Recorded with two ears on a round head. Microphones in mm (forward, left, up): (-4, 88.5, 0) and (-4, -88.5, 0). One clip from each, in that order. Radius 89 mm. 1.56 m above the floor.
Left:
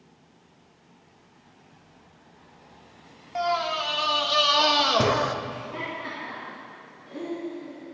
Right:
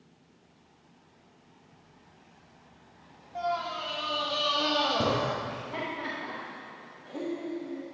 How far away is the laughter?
About 1.0 m.